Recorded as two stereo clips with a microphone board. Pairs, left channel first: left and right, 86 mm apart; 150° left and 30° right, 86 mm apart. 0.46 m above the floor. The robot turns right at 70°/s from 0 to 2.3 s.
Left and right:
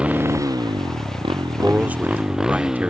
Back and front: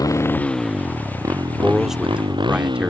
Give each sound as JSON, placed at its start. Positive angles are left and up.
{"t": 0.0, "sound": "a motorcycle", "azimuth_deg": -170}
{"t": 1.6, "sound": "a man speaking", "azimuth_deg": -125}